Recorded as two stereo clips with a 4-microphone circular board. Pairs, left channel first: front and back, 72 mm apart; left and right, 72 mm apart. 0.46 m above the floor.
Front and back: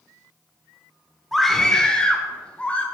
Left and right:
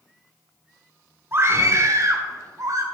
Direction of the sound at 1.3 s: 85° right.